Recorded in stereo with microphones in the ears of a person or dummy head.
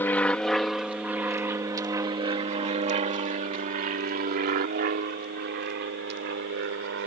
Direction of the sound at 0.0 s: 15° left (ahead or behind).